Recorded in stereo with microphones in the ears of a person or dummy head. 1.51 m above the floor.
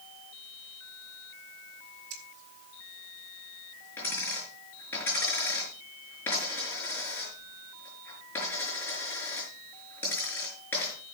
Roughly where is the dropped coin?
Centre.